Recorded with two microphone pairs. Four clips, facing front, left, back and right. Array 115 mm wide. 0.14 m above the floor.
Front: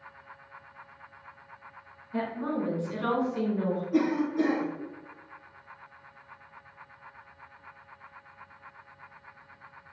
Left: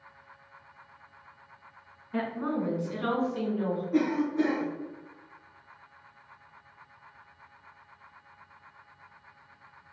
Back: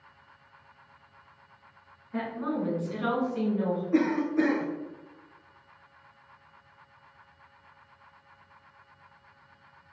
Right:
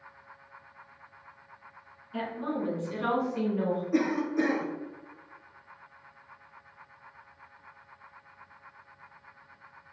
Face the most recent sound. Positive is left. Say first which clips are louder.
# left 2 dB, back 1 dB
turn(degrees=-150)